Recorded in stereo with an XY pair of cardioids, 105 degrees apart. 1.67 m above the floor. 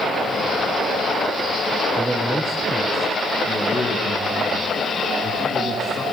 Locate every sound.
2.0 s a man speaking: 25° right, 1.0 m; by 6.0 s 40° left, 3.5 m